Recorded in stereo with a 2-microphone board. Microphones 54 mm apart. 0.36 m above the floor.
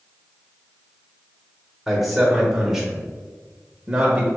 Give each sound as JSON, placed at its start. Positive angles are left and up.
{"t": 1.9, "sound": "a man speaking", "side_deg": 0, "distance_m": 1.0}